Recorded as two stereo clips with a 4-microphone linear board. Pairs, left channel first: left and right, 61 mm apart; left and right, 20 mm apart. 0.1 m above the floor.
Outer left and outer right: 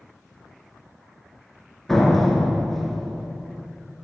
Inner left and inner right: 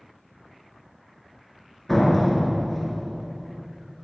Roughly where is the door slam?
Centre.